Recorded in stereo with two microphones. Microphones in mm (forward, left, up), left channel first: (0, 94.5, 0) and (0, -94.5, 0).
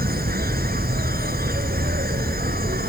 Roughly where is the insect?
Right.